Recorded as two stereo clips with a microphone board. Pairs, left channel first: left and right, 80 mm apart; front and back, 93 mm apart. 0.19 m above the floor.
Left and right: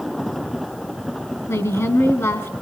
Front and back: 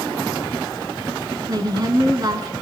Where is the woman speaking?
140° left, 3 m.